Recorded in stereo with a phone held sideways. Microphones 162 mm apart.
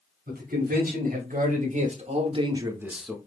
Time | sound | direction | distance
0.3 | a man speaking | 70° right (ahead or behind) | 2.5 m